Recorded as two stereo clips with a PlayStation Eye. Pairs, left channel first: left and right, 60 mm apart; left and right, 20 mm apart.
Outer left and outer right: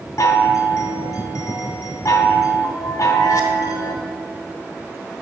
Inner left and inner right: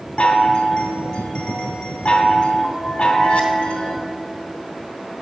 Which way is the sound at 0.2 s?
70° left (ahead or behind).